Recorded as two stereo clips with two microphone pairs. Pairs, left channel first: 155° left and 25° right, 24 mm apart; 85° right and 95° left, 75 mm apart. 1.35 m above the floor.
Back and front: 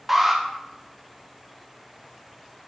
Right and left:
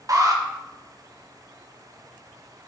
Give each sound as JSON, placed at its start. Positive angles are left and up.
{"t": 0.1, "sound": "an alarm", "azimuth_deg": 60, "distance_m": 1.1}